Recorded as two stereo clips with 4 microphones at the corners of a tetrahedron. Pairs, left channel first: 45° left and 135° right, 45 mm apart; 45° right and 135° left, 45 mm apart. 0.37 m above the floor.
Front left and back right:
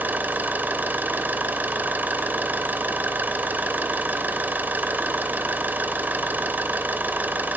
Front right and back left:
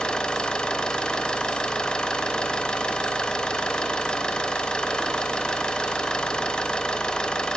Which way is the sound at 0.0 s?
110° right.